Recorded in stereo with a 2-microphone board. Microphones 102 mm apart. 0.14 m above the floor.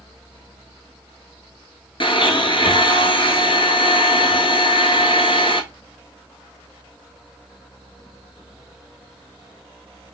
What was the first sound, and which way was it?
A blender, 55° left (ahead or behind).